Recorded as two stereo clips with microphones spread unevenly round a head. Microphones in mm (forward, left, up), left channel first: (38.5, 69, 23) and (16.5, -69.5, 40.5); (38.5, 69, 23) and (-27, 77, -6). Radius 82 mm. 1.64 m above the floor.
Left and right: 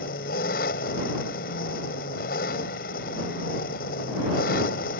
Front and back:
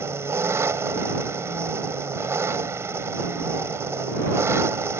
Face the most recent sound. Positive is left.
turn(degrees=115)